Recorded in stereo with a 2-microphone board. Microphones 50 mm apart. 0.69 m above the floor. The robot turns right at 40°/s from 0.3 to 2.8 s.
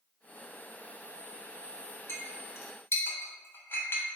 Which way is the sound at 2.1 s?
50° left (ahead or behind).